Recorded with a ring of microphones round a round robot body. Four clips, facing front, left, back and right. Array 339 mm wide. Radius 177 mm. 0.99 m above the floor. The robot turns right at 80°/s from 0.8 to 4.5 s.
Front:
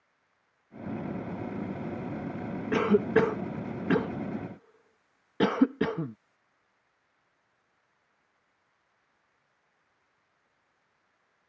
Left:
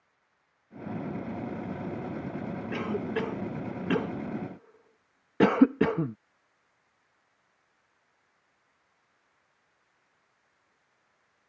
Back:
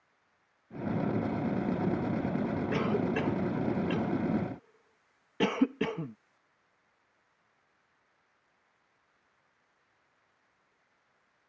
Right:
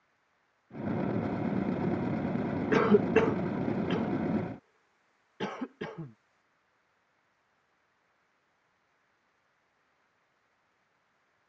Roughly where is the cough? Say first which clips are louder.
Right 9 dB, front 9 dB; ahead right.